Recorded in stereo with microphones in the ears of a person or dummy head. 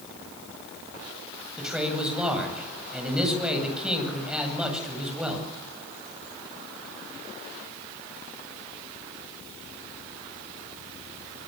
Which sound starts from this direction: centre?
A man speaking, at 1.6 s.